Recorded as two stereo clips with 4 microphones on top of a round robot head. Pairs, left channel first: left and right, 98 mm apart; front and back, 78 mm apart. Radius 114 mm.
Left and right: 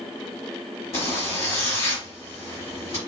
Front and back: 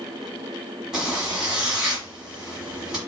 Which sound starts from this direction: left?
A zipper, at 0.9 s.